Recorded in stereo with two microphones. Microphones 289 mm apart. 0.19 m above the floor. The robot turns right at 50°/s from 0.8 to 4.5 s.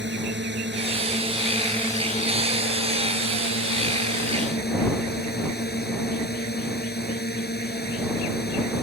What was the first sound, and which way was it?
A drone, 45° right.